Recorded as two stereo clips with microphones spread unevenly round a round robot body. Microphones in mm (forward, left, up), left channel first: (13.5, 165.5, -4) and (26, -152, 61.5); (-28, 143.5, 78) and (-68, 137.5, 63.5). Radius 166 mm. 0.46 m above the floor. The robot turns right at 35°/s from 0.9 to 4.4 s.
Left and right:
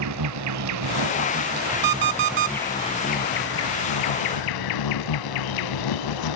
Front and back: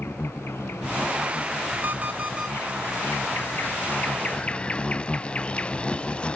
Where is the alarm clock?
120° right, 0.9 m; by 2.6 s 95° right, 0.9 m.